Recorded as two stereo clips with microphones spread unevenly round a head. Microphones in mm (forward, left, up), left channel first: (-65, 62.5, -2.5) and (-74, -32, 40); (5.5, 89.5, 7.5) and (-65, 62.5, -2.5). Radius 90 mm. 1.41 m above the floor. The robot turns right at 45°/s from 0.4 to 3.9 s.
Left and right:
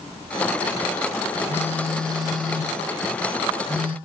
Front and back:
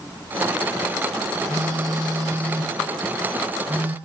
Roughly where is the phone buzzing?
Behind.